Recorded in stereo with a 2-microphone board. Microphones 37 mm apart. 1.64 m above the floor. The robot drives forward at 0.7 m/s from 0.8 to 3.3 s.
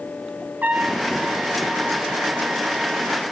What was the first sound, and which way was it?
A trumpet, 60° right (ahead or behind).